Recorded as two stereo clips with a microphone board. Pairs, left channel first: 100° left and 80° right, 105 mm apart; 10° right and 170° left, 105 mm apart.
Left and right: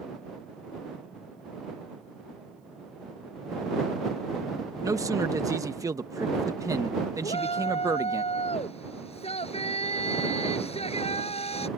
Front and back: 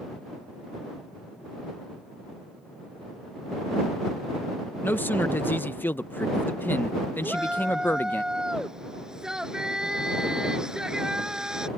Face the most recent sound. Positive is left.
turn(degrees=85)